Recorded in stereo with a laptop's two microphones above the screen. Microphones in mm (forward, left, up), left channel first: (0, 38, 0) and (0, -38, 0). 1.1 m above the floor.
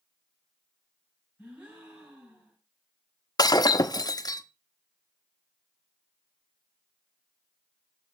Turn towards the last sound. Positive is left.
turn(degrees=60)  # may be behind; listen again after turning